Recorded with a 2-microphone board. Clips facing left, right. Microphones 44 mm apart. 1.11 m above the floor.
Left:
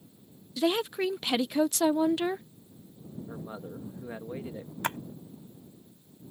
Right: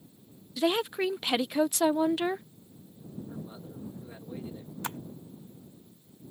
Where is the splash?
65° left (ahead or behind).